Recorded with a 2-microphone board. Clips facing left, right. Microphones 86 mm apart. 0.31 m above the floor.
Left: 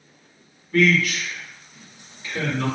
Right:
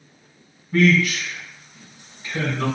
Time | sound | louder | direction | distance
0.7 | a man speaking | right 1 dB | 30° right (ahead or behind) | 2.0 m